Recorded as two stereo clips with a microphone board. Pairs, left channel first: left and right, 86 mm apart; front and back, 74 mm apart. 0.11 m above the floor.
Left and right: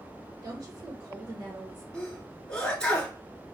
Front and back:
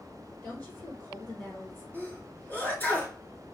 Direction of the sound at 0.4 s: 60° right.